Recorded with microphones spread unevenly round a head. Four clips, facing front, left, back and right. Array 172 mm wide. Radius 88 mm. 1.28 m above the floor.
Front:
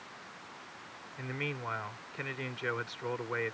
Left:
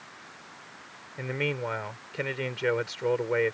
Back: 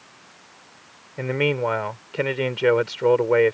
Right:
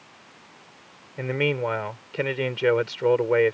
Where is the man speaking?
145° right.